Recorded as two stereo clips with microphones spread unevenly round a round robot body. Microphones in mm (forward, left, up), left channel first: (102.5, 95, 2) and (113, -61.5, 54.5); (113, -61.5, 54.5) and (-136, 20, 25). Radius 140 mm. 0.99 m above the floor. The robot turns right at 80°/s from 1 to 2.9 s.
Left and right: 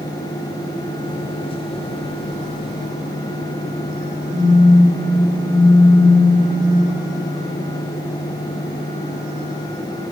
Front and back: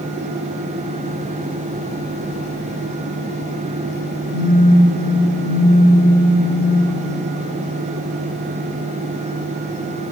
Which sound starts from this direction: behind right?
A phone buzzing, at 4.3 s.